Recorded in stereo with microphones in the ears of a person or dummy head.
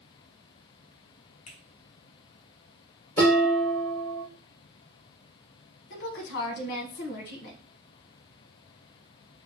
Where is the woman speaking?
45° left (ahead or behind), 1.0 m.